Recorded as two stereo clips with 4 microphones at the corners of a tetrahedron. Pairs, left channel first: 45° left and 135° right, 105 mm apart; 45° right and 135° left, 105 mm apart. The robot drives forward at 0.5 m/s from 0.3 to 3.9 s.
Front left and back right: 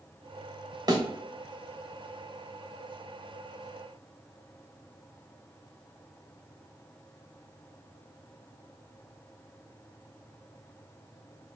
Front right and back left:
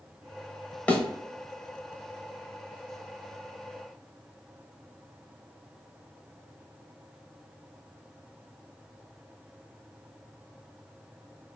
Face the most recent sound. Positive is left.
turn(degrees=-160)